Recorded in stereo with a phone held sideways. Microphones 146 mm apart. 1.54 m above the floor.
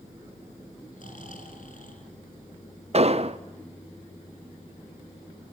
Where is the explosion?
45° right (ahead or behind), 0.8 m.